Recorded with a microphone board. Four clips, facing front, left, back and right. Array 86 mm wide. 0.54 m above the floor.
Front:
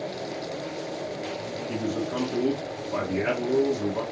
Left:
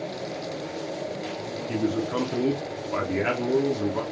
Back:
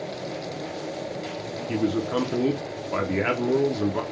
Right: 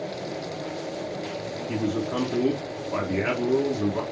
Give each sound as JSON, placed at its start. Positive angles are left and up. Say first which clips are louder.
{"t": 1.7, "sound": "a man speaking", "louder": "left 1 dB, back 5 dB", "azimuth_deg": 170, "distance_m": 0.7}